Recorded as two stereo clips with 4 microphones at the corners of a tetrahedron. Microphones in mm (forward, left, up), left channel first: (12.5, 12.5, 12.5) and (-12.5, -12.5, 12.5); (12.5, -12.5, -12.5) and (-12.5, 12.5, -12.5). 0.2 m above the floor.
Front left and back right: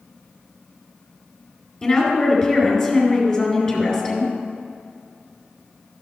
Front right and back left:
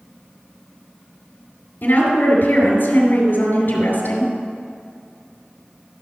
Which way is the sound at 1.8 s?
20° right.